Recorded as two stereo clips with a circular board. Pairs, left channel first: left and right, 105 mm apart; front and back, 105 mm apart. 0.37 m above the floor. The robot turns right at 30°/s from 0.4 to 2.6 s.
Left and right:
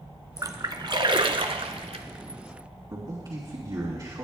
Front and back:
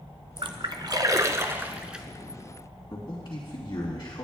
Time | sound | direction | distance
0.4 | a splash | 145° right | 0.7 m
2.9 | a man speaking | 50° right | 3 m